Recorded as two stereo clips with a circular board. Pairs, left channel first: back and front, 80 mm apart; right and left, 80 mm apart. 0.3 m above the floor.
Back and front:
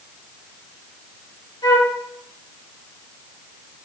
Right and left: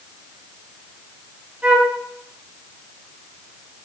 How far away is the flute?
About 0.9 m.